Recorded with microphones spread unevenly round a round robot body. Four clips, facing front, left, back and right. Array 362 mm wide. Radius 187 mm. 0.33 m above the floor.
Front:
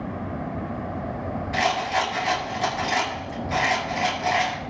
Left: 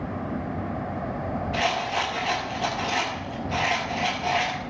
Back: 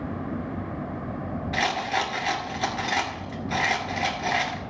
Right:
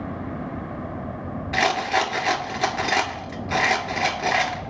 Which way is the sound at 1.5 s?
105° right.